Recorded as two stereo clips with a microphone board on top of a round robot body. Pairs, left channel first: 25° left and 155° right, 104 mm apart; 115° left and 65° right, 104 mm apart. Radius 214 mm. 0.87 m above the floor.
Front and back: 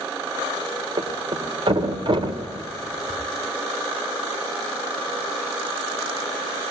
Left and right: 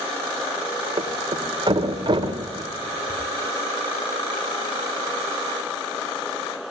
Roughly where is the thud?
Behind right.